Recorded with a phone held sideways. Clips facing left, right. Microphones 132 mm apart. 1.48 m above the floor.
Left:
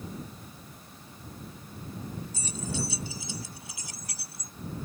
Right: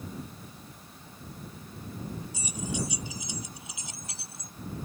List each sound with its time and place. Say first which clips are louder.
2.3 s keys jangling: right 1 dB; 15° right (ahead or behind); by 4.5 s 25° right (ahead or behind)